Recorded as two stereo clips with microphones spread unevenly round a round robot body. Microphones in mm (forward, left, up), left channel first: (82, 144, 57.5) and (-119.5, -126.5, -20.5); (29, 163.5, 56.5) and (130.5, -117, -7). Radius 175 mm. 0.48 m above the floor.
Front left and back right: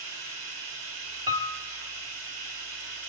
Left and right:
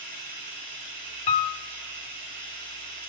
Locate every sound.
0.0 s running water: 105° right, 4 m
1.3 s a piano: 150° left, 1.5 m